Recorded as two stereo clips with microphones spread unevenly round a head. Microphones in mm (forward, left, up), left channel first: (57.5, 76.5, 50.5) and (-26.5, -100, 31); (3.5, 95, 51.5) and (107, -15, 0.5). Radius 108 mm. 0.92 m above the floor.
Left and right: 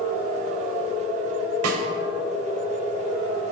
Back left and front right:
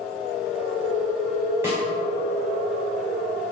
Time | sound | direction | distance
1.6 | a snare drum | 125° right | 2.5 m